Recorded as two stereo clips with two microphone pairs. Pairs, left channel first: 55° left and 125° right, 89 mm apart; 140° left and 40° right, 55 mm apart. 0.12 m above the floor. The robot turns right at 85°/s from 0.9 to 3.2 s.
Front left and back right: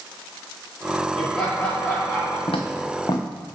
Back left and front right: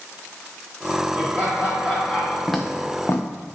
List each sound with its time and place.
1.1 s laughter: 40° right, 1.9 m; by 2.4 s 65° left, 1.9 m
2.5 s footsteps: 45° left, 0.7 m; by 3.2 s 110° left, 0.7 m